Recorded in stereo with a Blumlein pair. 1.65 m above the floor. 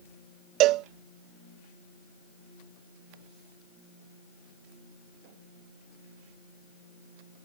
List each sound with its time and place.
0.6 s a cowbell: 40° right